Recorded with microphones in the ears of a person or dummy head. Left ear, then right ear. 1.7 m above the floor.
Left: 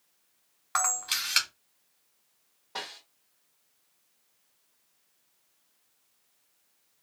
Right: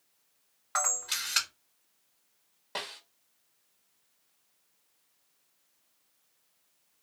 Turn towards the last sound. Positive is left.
turn(degrees=-40)  # may be behind; listen again after turning